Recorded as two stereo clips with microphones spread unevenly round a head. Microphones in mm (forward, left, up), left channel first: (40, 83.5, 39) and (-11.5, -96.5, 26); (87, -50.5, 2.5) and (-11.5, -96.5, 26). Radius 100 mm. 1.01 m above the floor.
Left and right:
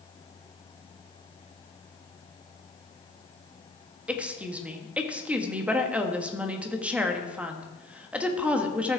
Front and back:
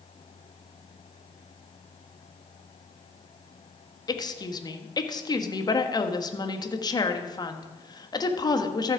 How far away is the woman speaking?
About 1.5 m.